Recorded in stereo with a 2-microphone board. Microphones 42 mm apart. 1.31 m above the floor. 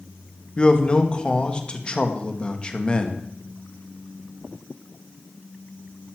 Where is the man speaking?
25° left (ahead or behind), 1.8 m.